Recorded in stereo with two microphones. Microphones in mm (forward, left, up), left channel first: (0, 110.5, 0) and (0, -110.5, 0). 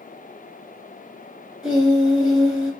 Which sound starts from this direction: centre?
Singing, at 1.6 s.